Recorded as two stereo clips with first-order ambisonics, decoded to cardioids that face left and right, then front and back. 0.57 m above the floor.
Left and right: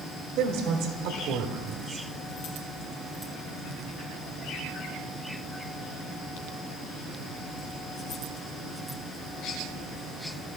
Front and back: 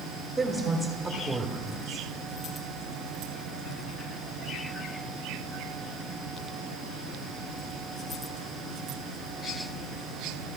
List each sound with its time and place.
0.4 s a woman speaking: 85° right, 1.2 m